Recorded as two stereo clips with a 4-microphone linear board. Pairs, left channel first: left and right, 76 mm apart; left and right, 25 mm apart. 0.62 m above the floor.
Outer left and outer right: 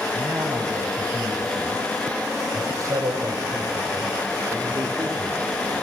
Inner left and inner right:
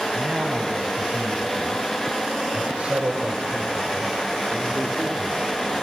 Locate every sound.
0.1 s a man speaking: 50° right (ahead or behind), 5 m; by 5.5 s 40° right (ahead or behind), 2 m